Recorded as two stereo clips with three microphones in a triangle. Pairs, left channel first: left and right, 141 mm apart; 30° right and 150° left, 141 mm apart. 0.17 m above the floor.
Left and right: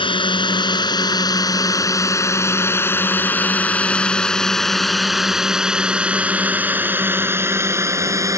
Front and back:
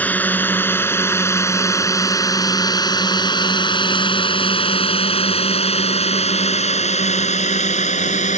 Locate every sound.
0.0 s a drone: 45° left; by 8.4 s 25° right